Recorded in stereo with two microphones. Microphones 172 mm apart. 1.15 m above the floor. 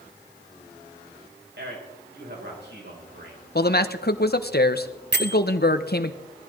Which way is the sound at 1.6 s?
80° right.